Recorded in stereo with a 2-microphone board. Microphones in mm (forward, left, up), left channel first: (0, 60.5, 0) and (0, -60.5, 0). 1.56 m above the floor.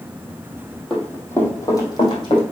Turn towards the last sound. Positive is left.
turn(degrees=45)  # may be behind; listen again after turning